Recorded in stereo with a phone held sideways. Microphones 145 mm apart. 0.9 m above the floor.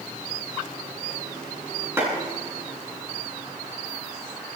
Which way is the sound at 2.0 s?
15° right (ahead or behind).